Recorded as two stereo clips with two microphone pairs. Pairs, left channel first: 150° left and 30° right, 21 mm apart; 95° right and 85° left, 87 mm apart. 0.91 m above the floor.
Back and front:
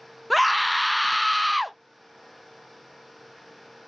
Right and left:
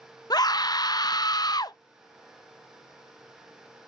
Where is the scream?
120° right, 0.5 m.